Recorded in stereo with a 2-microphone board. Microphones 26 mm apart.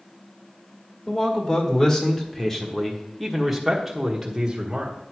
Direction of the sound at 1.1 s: 35° left (ahead or behind).